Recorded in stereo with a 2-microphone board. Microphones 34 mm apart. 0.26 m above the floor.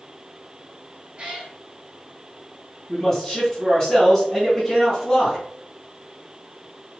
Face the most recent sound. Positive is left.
turn(degrees=15)  # may be behind; listen again after turning